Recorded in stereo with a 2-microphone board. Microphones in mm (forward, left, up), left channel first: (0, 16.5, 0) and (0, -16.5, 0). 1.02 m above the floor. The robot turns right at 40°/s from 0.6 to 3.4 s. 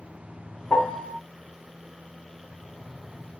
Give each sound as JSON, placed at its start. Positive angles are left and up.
{"t": 0.7, "sound": "a piano", "side_deg": 65, "distance_m": 1.4}